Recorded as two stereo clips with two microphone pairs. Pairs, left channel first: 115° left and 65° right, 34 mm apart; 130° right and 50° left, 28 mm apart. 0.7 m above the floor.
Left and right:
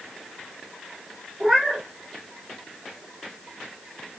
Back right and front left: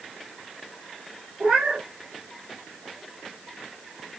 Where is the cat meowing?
25° left, 2.5 m.